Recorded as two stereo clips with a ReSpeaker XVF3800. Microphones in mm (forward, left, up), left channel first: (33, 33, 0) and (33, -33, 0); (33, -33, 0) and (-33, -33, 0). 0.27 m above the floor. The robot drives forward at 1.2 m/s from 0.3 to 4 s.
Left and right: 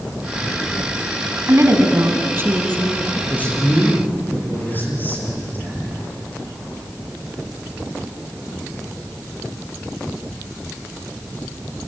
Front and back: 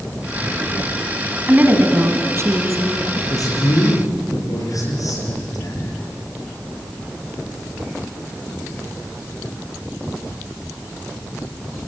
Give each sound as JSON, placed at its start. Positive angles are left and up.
{"t": 1.5, "sound": "a woman speaking", "azimuth_deg": -120, "distance_m": 2.5}
{"t": 3.3, "sound": "a man speaking", "azimuth_deg": 25, "distance_m": 7.0}